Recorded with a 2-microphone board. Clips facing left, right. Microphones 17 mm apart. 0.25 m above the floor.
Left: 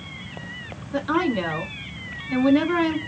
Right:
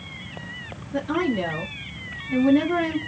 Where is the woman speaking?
60° left (ahead or behind), 2 m.